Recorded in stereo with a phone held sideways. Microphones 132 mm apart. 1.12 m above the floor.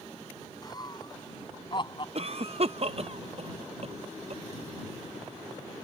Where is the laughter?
30° left (ahead or behind); by 2.0 s 40° left (ahead or behind).